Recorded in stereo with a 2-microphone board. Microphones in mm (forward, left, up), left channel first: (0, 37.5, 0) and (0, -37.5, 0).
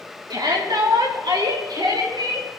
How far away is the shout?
About 3 m.